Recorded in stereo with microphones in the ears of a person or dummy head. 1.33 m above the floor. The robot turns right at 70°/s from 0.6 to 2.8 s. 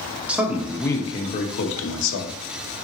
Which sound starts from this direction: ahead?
A man speaking, at 0.3 s.